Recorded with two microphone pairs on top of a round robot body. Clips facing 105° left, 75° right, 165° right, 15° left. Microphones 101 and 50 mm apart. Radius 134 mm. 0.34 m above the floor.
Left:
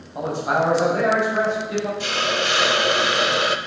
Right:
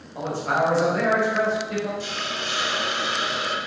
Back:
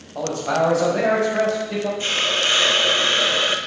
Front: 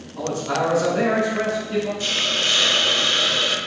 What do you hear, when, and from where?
0.1 s a man speaking: 175° left, 3.5 m
2.0 s a hiss: 125° left, 0.5 m